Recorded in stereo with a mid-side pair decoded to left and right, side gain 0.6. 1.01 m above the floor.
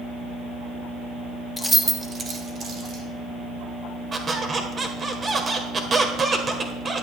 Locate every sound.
1.6 s keys jangling: 10° left, 1.1 m; by 3.0 s 55° right, 2.5 m
4.1 s a squeak: 30° right, 1.5 m